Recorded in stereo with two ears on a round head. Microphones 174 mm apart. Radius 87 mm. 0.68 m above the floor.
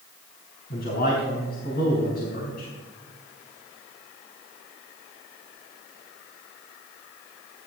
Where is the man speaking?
50° left (ahead or behind), 4.5 m.